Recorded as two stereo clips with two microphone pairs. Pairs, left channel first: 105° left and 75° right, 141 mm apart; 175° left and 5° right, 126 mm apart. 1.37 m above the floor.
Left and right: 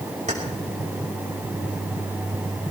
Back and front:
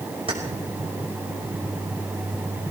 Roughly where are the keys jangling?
Ahead right.